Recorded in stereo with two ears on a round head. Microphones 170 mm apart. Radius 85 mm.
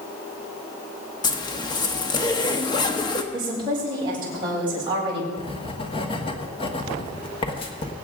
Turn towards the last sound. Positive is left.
turn(degrees=30)  # may be behind; listen again after turning